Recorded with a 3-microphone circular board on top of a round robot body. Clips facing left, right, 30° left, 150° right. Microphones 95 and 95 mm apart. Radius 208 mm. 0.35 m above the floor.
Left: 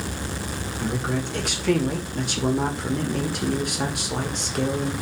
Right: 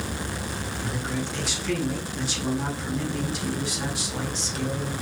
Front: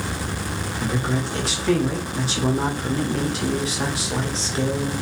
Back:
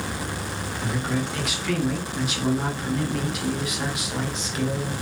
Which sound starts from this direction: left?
A man speaking, at 0.8 s.